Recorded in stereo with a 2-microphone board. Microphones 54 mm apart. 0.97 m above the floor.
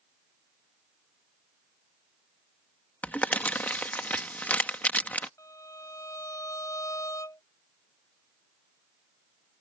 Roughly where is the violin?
Left.